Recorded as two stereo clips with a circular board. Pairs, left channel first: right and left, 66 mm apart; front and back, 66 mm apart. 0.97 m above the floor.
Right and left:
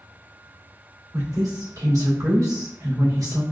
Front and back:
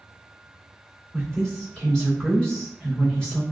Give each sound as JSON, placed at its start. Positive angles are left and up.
{"t": 1.1, "sound": "a woman speaking", "azimuth_deg": 80, "distance_m": 1.9}